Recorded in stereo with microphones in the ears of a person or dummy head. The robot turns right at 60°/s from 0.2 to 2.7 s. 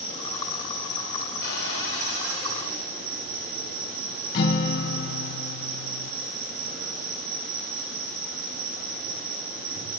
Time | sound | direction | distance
0.0 | an insect | 35° left | 7.5 m
1.4 | a cupboard door | 55° left | 4.5 m
4.3 | a guitar | 55° left (ahead or behind) | 1.7 m